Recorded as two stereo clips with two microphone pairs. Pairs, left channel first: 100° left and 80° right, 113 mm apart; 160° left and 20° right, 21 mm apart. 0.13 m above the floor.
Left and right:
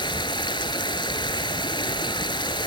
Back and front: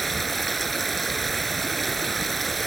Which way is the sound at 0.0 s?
80° left.